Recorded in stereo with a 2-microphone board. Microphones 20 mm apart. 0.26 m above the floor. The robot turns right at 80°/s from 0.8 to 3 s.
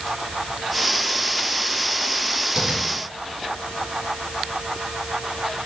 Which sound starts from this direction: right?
Tapping, at 2.6 s.